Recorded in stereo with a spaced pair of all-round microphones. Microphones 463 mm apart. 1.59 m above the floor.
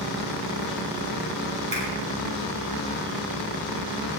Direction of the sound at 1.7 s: 15° left (ahead or behind).